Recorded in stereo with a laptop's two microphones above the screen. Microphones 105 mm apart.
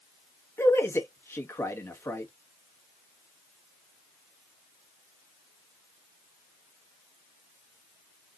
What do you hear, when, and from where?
0.6 s a man speaking: 25° left (ahead or behind), 1.2 m